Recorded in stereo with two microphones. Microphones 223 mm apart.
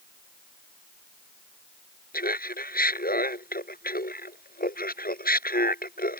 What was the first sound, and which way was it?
Laughter, 40° left (ahead or behind).